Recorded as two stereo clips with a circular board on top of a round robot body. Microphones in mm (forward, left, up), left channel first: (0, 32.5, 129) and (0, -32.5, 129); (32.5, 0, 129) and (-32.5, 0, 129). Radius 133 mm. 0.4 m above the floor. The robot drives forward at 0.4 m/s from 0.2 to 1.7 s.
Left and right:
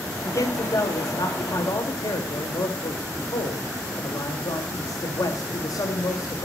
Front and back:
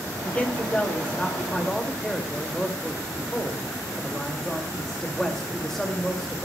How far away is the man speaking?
About 2 m.